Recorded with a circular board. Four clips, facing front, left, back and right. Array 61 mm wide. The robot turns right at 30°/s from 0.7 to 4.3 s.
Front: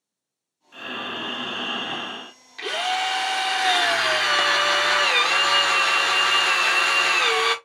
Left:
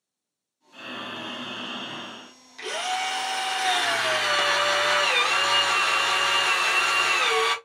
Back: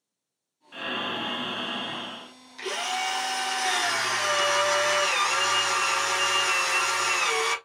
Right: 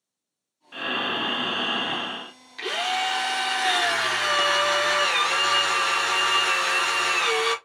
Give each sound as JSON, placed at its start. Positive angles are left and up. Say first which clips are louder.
{"t": 0.7, "sound": "breathing", "louder": "right 8 dB, back 1 dB", "azimuth_deg": -105, "distance_m": 0.6}
{"t": 2.6, "sound": "a drill", "louder": "right 2 dB, front 5 dB", "azimuth_deg": -50, "distance_m": 0.8}